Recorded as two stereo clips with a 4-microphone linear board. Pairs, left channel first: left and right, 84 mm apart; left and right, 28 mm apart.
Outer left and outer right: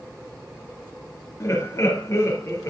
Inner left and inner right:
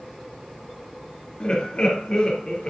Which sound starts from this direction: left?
Laughter, at 1.4 s.